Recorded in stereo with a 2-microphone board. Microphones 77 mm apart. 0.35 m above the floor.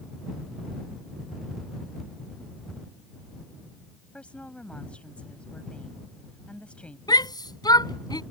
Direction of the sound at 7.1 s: 70° left (ahead or behind).